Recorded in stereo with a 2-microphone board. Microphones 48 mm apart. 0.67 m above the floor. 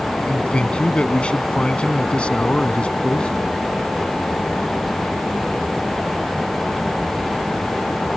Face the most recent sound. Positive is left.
turn(degrees=25)  # may be behind; listen again after turning